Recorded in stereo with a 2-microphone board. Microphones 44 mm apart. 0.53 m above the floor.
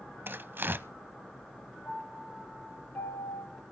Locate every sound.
0.3 s tearing paper: 50° right (ahead or behind), 0.6 m
1.9 s a piano: 70° left (ahead or behind), 9 m